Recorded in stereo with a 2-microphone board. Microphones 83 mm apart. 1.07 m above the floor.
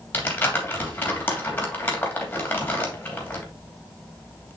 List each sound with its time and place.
0.1 s crumpling: 20° left (ahead or behind), 3 m